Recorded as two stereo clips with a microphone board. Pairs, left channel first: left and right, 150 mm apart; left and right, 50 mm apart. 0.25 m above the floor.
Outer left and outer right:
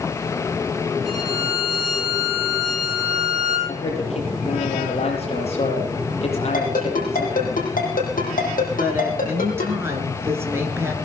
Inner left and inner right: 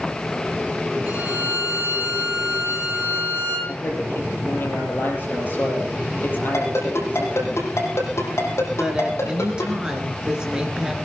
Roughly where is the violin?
Right.